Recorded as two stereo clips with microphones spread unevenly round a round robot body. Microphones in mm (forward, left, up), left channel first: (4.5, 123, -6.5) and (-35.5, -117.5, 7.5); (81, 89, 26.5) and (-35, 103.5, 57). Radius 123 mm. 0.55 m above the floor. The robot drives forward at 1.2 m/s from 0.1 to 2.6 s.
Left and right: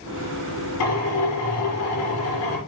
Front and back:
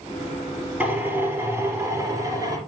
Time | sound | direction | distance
0.8 | a drill | 95° left | 6.5 m